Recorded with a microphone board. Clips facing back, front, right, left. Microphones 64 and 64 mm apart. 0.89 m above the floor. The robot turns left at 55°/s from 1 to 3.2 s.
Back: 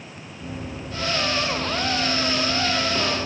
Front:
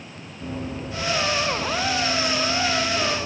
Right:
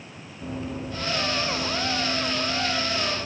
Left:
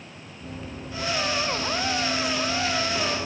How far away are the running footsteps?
About 4 m.